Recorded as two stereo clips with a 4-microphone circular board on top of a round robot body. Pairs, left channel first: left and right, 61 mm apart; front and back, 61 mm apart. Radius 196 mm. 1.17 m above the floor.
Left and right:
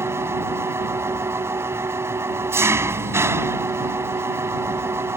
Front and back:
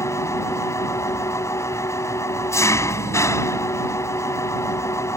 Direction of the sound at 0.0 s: 40° right.